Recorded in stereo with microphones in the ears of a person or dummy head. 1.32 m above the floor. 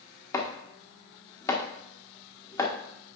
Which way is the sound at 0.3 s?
20° left (ahead or behind).